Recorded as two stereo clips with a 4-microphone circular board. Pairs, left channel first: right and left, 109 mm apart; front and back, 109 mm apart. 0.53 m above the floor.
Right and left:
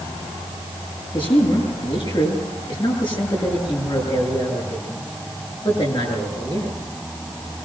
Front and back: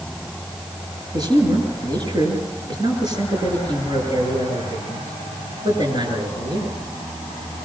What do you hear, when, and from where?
1.1 s a man speaking: 130° right, 9.5 m